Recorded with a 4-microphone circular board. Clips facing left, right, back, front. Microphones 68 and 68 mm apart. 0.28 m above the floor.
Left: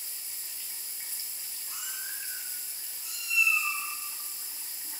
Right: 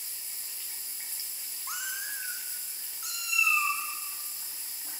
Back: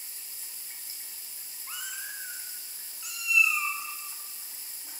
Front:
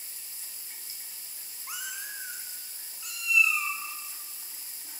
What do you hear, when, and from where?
1.7 s a cat meowing: 75° right, 4.5 m; by 4.9 s 110° right, 8.5 m